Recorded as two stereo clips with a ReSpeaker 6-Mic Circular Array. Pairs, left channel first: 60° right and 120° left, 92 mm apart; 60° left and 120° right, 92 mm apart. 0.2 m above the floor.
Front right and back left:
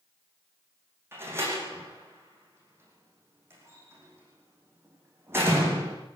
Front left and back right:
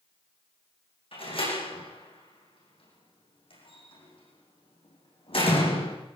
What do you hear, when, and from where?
1.1 s a door slam: 55° left, 8.5 m